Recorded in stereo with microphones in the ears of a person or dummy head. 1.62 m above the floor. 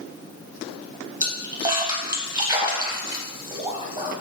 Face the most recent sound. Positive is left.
turn(degrees=-25)  # may be behind; listen again after turning